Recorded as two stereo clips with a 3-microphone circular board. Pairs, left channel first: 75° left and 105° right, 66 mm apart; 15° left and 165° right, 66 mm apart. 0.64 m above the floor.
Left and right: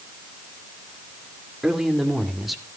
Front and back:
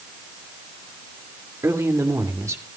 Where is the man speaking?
175° left, 2 m; by 2.6 s 165° left, 2.5 m.